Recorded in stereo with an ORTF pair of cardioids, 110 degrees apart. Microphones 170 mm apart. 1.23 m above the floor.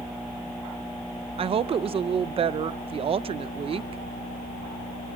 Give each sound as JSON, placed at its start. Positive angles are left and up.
{"t": 1.4, "sound": "a woman speaking", "azimuth_deg": -35, "distance_m": 0.7}